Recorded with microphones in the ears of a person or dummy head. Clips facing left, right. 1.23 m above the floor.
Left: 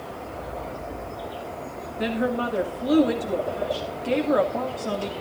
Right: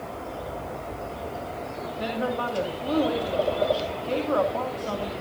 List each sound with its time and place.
2.0 s a woman speaking: 20° left (ahead or behind), 2 m